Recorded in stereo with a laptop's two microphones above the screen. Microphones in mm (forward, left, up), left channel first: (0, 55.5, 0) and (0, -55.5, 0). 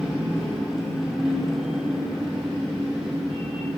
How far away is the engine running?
About 2 m.